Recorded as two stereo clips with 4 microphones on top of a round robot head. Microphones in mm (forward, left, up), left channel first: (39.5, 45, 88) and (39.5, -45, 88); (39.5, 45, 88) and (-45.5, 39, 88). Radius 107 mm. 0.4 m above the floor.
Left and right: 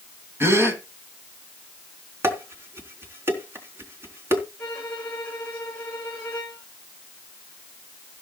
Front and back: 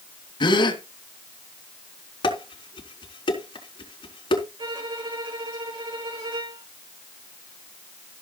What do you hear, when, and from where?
0.4 s a gasp: 30° right, 3 m
2.2 s dishes clattering: 30° right, 4 m
4.6 s a violin: 165° left, 8 m